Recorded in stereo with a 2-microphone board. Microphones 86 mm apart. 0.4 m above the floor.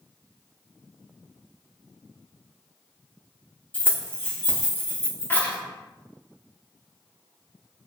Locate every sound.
3.7 s keys jangling: 20° left (ahead or behind), 0.8 m